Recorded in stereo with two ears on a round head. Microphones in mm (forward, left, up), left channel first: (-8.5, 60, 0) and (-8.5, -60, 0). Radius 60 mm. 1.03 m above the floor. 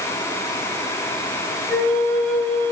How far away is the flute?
About 5 m.